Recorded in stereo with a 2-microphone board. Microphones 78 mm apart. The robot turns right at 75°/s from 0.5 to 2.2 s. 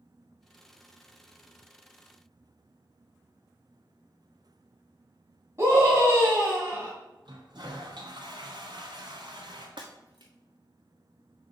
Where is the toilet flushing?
70° right (ahead or behind), 2 m.